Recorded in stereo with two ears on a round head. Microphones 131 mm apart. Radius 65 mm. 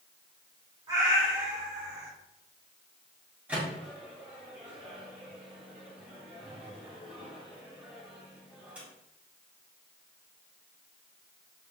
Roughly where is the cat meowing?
Right.